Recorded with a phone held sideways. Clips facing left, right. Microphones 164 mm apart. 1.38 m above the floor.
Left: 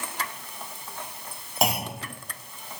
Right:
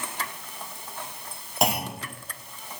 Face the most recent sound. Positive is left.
turn(degrees=0)  # may be behind; listen again after turning